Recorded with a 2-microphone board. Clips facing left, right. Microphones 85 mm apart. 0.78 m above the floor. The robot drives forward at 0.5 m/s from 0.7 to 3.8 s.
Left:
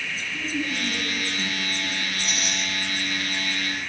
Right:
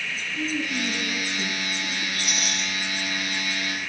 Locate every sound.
0.3 s a woman speaking: 5° left (ahead or behind), 8.5 m
2.1 s a rattle: 35° left (ahead or behind), 7 m